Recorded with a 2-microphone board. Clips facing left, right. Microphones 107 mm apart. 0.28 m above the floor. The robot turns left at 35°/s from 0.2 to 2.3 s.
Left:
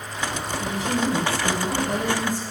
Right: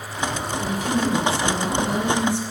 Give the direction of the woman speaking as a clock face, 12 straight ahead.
1 o'clock.